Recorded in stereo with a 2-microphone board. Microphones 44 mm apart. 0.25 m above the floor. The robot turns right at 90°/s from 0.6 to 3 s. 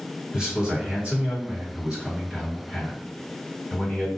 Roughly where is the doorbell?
No doorbell in this recording.